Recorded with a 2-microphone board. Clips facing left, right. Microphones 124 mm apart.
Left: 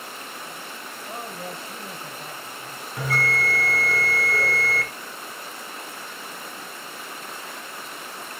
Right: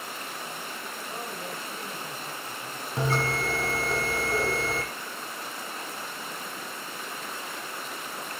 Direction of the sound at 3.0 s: 25° right (ahead or behind).